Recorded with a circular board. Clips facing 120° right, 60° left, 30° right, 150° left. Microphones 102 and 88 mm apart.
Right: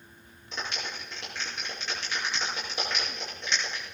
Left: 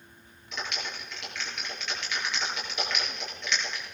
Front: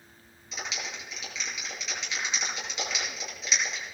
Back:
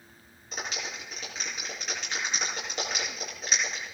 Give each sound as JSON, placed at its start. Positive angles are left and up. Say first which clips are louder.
{"t": 0.5, "sound": "a clap", "louder": "even, back 1 dB", "azimuth_deg": -175, "distance_m": 6.0}